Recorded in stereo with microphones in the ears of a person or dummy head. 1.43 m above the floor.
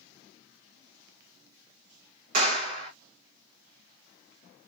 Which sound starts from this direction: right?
A clap, at 2.3 s.